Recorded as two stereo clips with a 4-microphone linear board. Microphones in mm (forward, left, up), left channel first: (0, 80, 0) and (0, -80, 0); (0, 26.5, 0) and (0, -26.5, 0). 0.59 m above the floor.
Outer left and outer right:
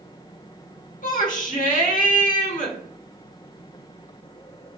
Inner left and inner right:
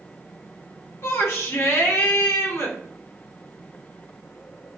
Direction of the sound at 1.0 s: 55° left (ahead or behind).